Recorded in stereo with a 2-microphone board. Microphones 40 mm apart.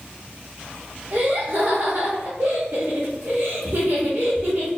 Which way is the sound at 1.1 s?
50° right (ahead or behind).